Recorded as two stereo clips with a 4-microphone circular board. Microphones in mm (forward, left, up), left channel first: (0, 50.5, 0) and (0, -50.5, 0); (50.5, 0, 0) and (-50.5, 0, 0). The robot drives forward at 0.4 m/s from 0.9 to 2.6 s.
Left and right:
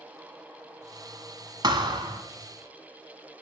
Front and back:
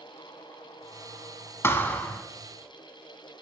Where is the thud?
60° right, 1.4 m; by 2.2 s 70° right, 1.3 m.